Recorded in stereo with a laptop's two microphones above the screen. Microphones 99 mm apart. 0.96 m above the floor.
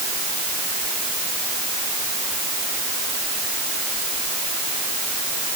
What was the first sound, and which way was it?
Only background noise.